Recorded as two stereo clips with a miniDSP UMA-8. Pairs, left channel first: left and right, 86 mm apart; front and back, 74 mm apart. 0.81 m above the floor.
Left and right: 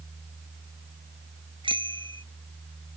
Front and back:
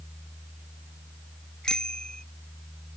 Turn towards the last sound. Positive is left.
turn(degrees=-80)